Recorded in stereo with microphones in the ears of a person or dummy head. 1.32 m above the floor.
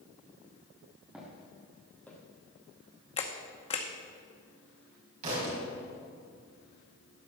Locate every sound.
1.1 s footsteps: 10° right (ahead or behind), 2 m; by 2.2 s 10° left (ahead or behind), 2 m
3.2 s a camera shutter: 25° left (ahead or behind), 0.8 m
5.2 s a thud: 45° right (ahead or behind), 4 m